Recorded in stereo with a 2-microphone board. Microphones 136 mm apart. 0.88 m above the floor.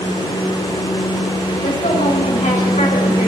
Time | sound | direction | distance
1.6 | a woman speaking | 65° left (ahead or behind) | 5 m